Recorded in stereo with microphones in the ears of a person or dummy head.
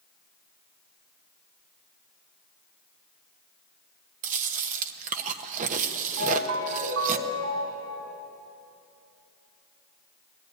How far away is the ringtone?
About 7 m.